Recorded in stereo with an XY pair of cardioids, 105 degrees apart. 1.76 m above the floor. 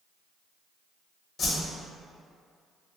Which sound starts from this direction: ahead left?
A whoosh, at 1.4 s.